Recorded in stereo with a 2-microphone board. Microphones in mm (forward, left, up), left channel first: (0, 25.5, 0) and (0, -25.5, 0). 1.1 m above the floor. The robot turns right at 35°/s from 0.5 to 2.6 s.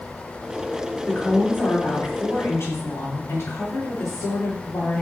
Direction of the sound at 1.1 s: 25° left.